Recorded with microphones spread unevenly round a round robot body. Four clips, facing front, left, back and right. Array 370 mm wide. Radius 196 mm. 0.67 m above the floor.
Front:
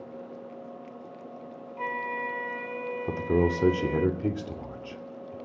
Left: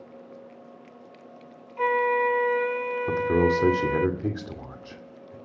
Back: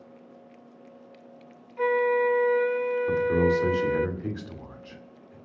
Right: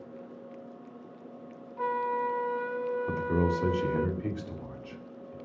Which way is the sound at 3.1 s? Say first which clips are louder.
Left 9 dB, back 1 dB; 50° left.